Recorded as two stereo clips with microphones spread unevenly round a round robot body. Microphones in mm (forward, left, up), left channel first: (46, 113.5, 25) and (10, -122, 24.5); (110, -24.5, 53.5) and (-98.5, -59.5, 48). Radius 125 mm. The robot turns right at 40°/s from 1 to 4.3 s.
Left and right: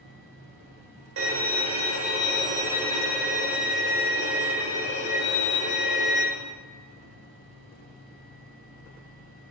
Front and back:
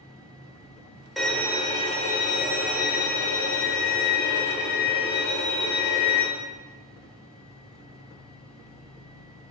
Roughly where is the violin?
Right.